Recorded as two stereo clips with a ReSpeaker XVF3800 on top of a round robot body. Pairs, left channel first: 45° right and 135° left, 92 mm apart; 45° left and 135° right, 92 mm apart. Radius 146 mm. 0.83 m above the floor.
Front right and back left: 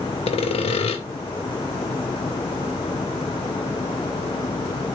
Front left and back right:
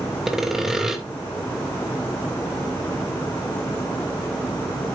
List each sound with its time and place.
0.3 s sawing: 50° right, 2 m